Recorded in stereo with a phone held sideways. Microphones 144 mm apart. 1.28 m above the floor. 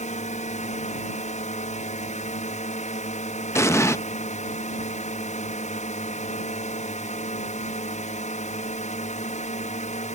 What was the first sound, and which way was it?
A drone, 55° left (ahead or behind).